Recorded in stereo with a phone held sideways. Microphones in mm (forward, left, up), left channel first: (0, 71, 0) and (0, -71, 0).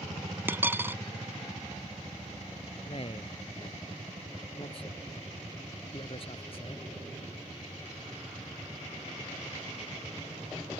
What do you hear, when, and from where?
0.5 s a dropped coin: 15° right (ahead or behind)
2.9 s a man speaking: 45° left (ahead or behind)